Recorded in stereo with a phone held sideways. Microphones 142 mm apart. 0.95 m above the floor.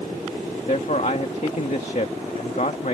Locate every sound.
0.7 s a man speaking: 55° left (ahead or behind)